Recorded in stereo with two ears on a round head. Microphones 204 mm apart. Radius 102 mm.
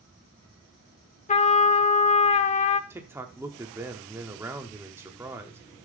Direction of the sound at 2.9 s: 10° right (ahead or behind).